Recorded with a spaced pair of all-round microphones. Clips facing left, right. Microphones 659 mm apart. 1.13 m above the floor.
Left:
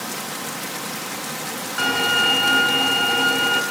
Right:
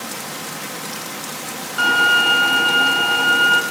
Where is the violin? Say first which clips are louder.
Even; 40° left (ahead or behind), 3 m.